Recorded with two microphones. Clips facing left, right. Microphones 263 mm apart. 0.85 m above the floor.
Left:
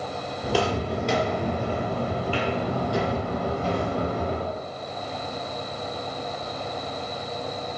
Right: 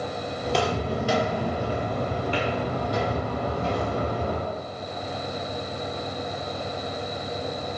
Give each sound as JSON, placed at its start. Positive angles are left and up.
{"t": 0.4, "sound": "footsteps", "side_deg": 5, "distance_m": 0.8}